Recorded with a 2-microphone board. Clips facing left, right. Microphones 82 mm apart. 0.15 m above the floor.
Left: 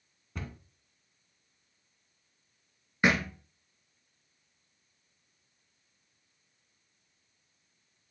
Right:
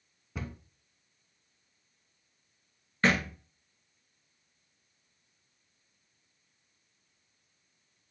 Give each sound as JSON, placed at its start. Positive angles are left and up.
{"t": 0.3, "sound": "a cupboard door", "side_deg": -5, "distance_m": 0.7}
{"t": 3.0, "sound": "a thud", "side_deg": 15, "distance_m": 0.9}